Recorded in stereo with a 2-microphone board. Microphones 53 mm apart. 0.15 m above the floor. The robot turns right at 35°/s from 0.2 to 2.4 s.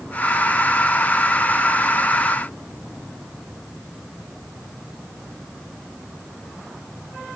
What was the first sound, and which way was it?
Only background noise.